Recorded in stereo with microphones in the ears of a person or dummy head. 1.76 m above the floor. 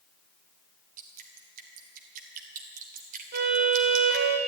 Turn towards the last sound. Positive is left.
turn(degrees=-55)  # may be behind; listen again after turning